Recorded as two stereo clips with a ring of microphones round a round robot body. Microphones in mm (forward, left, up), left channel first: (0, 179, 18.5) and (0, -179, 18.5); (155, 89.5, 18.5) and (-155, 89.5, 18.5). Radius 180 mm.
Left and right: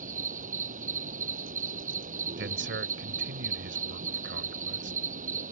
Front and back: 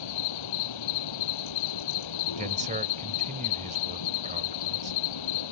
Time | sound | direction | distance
0.0 | an insect | 20° right | ?
2.4 | a man speaking | 125° right | ?